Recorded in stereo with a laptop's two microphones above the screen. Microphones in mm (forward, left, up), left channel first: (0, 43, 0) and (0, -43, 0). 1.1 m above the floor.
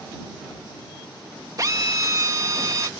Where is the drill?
40° right (ahead or behind).